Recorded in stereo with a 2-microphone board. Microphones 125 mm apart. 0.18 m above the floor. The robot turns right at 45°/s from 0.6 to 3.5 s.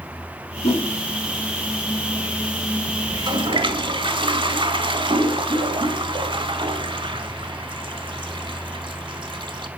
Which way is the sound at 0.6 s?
50° left (ahead or behind).